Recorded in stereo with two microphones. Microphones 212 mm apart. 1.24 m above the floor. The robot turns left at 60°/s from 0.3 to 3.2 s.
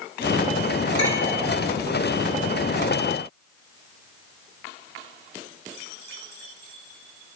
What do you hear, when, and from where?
1.0 s a clink: 90° left, 4 m; by 1.4 s 65° left (ahead or behind), 4 m